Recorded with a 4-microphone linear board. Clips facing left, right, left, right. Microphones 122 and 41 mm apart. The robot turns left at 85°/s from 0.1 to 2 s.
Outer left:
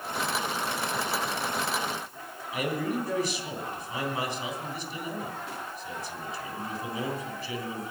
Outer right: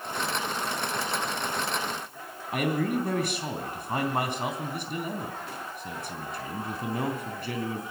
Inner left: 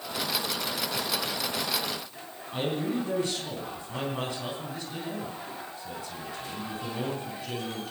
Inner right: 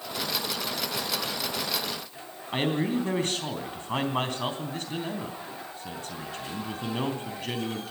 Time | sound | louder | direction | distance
2.5 | a man speaking | outer right 3 dB, inner right 3 dB | 65° right (ahead or behind) | 3 m